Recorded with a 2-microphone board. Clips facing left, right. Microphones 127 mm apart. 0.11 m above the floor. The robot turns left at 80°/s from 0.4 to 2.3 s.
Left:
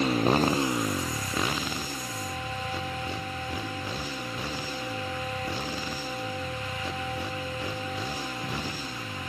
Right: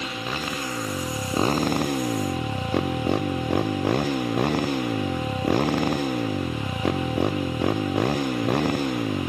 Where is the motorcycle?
45° left; by 9.3 s 110° right.